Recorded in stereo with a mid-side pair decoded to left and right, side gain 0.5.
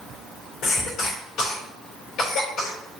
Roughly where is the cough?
Left.